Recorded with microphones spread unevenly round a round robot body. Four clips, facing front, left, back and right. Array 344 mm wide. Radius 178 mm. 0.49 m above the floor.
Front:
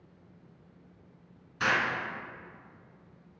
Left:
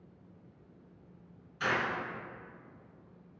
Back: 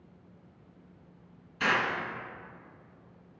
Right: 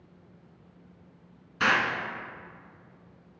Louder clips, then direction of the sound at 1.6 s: Right 6 dB, even; 85° right.